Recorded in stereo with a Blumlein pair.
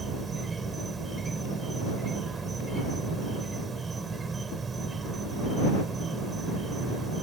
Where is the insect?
15° right.